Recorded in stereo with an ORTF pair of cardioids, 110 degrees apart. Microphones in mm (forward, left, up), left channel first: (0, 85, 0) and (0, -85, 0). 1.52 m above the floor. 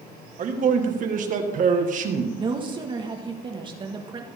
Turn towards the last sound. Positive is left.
turn(degrees=-30)